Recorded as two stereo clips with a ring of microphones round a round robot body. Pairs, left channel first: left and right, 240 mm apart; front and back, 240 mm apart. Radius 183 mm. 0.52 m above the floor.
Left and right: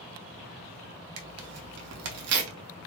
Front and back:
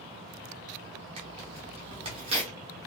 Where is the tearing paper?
110° right, 0.6 m.